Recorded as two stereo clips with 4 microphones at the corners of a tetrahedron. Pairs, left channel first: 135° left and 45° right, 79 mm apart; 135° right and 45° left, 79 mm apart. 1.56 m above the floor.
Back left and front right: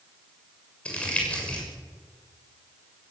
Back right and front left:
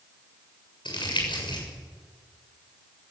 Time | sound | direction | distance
0.8 | crumpling | 150° right | 7 m